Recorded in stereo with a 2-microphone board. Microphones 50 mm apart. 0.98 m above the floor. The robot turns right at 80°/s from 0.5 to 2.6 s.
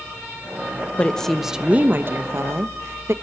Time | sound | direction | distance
1.0 | a woman speaking | 150° left | 1.0 m